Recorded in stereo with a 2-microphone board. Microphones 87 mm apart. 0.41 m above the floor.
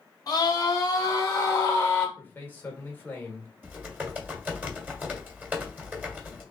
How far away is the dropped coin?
No dropped coin in this recording.